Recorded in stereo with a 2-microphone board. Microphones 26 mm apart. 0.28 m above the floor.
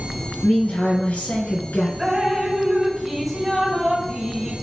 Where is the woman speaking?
70° left (ahead or behind), 4 m; by 1.9 s 60° left (ahead or behind), 3.5 m.